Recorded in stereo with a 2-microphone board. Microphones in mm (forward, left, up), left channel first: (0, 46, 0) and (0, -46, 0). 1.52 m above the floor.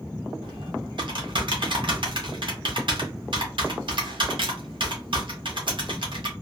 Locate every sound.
0.4 s typing on a keyboard: 60° right (ahead or behind), 0.9 m